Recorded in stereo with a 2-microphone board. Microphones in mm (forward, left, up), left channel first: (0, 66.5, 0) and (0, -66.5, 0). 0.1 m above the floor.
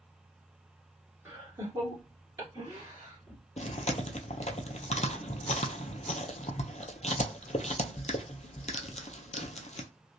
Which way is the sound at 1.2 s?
20° right (ahead or behind).